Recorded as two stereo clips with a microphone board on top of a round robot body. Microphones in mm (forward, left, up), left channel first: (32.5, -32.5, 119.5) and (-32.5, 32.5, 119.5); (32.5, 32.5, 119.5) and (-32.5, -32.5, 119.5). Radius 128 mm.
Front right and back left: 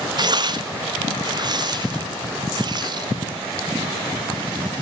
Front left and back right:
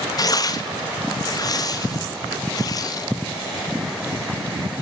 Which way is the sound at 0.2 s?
95° left.